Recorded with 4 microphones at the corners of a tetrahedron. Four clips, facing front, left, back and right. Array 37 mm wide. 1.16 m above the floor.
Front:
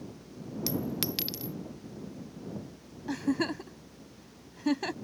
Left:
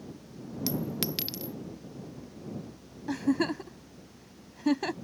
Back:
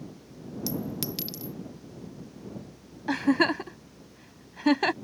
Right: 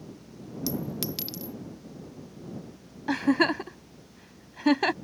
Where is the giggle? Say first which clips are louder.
Right 5 dB, back 7 dB; 135° right.